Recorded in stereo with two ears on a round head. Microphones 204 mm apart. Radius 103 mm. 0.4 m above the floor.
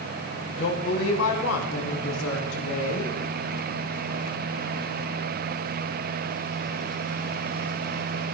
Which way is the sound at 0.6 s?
60° left (ahead or behind).